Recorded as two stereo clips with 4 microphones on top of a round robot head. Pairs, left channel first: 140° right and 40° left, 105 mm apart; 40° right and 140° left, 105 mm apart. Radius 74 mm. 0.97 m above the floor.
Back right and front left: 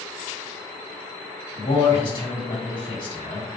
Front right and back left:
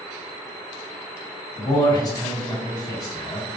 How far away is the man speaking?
About 1.7 m.